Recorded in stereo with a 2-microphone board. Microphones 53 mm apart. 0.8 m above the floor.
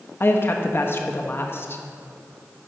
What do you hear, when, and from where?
0.2 s a woman speaking: 45° left (ahead or behind), 0.7 m